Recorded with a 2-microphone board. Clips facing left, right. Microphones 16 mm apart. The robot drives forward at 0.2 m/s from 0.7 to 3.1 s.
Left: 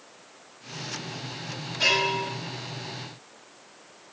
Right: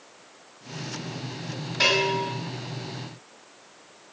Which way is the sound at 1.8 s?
40° right (ahead or behind).